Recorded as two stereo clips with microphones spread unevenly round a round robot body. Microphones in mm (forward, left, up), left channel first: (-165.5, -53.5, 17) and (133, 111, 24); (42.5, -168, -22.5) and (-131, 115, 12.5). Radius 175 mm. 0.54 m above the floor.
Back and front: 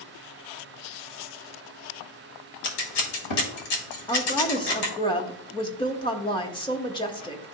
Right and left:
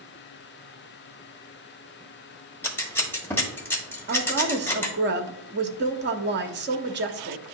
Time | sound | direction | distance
2.6 | scissors | 140° right | 1.5 m
4.1 | a woman speaking | 150° left | 0.8 m